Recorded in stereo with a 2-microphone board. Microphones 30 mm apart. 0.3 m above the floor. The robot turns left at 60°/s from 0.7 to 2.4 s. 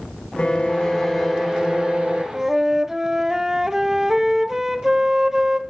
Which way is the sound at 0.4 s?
30° left.